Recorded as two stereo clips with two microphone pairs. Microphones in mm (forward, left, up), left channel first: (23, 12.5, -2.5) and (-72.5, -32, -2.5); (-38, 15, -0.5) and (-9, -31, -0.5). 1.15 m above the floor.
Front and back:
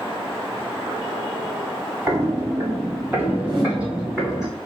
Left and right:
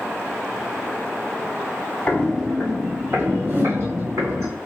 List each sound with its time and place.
2.1 s footsteps: 165° left, 1.3 m; by 4.5 s 75° right, 3.5 m
3.5 s a whoosh: 110° right, 2.5 m